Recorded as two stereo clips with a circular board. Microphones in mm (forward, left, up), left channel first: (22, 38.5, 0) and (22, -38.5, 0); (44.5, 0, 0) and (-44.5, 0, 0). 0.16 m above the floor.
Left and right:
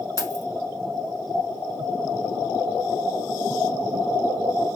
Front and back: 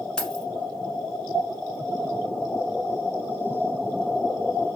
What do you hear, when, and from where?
0.2 s keys jangling: 75° left, 1.1 m